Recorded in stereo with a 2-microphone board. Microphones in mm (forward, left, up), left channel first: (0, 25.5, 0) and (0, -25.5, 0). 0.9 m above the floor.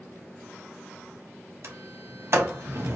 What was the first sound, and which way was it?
A sliding door, 55° right (ahead or behind).